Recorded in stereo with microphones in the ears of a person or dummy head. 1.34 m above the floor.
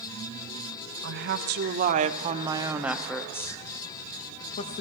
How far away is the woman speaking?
About 1.2 m.